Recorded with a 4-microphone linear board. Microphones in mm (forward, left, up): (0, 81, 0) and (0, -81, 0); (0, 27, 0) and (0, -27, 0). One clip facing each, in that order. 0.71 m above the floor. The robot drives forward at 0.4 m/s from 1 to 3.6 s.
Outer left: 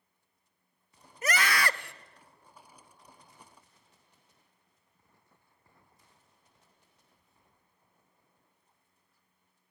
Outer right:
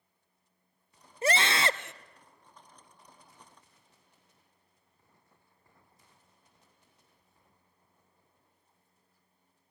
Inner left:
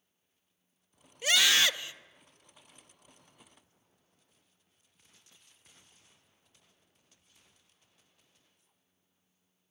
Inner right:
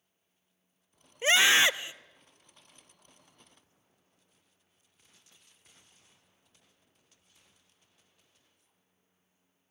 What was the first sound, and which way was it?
A scream, 30° right (ahead or behind).